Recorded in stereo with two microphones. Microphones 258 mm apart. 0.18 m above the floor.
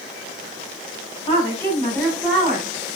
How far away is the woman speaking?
About 1.5 m.